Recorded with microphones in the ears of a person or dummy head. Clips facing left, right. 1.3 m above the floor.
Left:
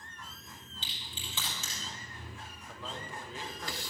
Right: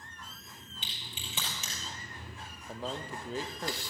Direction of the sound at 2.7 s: 30° right (ahead or behind).